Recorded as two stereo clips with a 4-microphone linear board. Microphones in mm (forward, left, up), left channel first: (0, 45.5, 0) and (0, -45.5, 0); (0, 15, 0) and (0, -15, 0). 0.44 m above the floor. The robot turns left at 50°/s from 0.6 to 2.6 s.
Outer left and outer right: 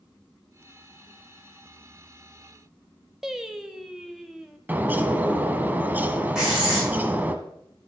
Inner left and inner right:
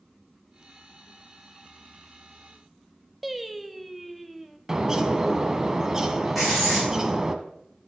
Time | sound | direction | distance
3.2 | singing | 5° right (ahead or behind) | 0.8 m
4.7 | a bird | 20° right (ahead or behind) | 0.9 m
6.3 | writing | 5° right (ahead or behind) | 6 m